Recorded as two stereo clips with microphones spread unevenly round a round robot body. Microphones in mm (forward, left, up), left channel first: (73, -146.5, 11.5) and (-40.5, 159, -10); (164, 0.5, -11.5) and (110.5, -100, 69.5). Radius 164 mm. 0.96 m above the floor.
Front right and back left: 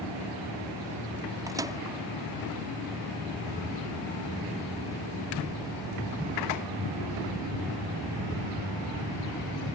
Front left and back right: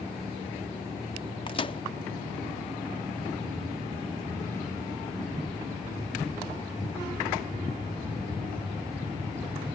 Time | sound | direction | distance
1.5 | a microwave | 30° left | ?